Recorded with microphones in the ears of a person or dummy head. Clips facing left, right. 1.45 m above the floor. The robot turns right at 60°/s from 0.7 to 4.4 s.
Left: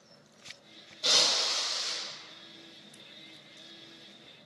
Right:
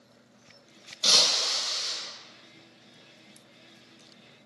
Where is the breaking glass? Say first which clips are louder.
Right 1 dB; 105° right, 1.2 m; by 1.9 s 55° right, 1.2 m.